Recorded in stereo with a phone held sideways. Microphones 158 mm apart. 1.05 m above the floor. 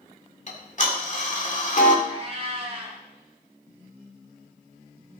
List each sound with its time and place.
0.5 s ticking: 50° left (ahead or behind), 2 m
2.0 s a cat meowing: 40° right (ahead or behind), 3.5 m